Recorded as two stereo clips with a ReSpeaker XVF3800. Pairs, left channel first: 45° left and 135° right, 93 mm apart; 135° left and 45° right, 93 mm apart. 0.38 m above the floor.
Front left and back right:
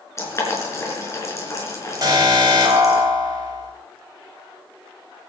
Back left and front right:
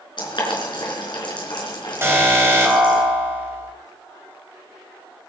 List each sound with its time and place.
0.2 s boiling: 100° left, 4.5 m
2.0 s an alarm: 105° right, 3.5 m